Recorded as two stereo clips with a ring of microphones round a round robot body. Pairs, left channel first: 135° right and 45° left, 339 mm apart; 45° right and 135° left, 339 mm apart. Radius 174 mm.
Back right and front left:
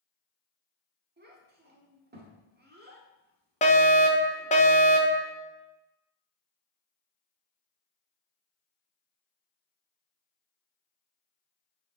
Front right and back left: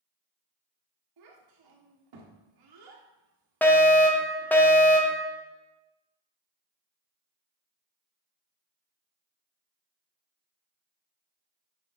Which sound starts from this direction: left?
A child speaking, at 1.2 s.